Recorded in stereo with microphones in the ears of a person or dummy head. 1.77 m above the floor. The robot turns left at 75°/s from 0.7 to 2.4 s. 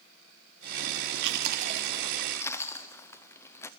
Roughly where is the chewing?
Right.